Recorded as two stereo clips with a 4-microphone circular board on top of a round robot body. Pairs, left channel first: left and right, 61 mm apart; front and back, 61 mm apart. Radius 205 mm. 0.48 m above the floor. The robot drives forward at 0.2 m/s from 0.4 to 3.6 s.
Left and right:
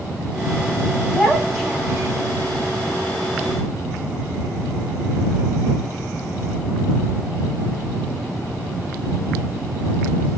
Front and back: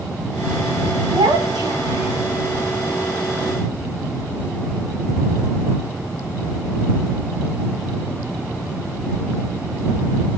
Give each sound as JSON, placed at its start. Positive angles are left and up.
{"t": 1.1, "sound": "a child speaking", "azimuth_deg": 180, "distance_m": 3.0}